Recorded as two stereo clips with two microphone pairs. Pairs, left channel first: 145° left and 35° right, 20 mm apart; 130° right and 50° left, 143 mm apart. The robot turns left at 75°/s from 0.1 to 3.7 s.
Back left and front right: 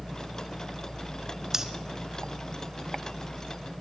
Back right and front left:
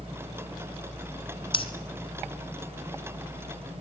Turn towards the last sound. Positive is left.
turn(degrees=100)